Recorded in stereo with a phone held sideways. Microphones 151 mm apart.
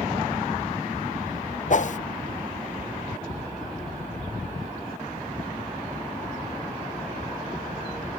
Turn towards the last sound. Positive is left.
turn(degrees=55)  # may be behind; listen again after turning